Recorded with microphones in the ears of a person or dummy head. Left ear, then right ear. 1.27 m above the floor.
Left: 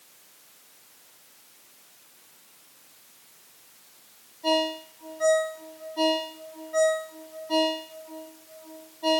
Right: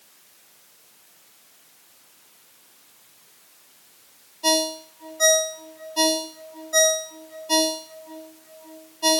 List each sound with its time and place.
4.4 s a ringtone: 75° right (ahead or behind), 1.9 m